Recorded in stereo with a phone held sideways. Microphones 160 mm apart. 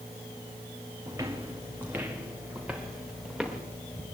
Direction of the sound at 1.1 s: 20° right (ahead or behind).